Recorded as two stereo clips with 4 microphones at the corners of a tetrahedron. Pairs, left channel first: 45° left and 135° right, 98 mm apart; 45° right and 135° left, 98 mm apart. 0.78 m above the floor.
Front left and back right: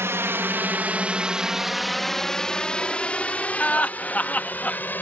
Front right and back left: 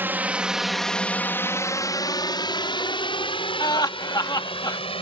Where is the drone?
175° right; by 5.0 s 25° right.